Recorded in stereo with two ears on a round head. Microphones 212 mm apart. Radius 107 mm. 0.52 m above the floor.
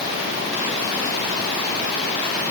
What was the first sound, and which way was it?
Only background noise.